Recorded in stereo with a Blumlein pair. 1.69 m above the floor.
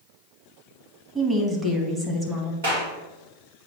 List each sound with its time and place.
1.1 s a woman speaking: 10° right, 1.8 m
2.6 s a clap: 55° right, 2.5 m